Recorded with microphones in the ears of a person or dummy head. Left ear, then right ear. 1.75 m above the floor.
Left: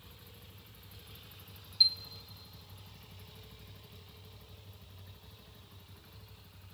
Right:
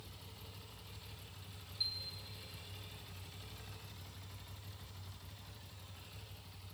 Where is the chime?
35° left (ahead or behind), 0.7 m.